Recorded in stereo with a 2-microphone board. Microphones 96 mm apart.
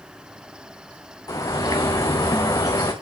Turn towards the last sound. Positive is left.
turn(degrees=35)  # may be behind; listen again after turning